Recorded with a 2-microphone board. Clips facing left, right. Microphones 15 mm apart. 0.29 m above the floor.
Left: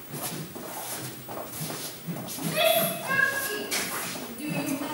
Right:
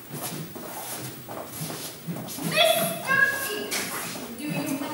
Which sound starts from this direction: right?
A shout, at 2.4 s.